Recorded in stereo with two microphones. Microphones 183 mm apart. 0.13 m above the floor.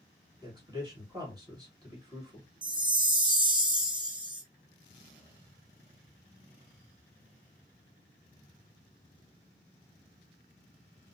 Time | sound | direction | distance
0.4 | a man speaking | 20° right (ahead or behind) | 1.9 m
2.6 | a chime | 25° right (ahead or behind) | 0.7 m